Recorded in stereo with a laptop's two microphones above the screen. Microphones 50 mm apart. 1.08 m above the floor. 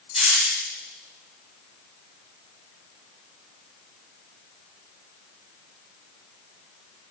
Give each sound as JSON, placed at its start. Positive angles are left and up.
{"t": 0.1, "sound": "a hiss", "side_deg": -5, "distance_m": 1.0}